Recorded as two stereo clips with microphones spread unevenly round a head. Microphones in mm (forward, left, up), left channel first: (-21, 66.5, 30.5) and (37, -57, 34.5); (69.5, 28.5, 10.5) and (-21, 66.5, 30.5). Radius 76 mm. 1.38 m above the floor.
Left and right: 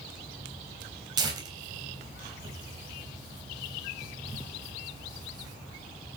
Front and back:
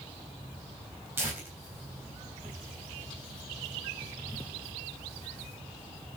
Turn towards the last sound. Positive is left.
turn(degrees=-130)